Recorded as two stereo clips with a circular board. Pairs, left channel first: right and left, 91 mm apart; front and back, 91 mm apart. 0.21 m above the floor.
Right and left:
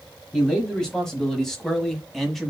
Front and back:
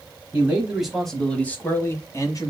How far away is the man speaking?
About 1.2 m.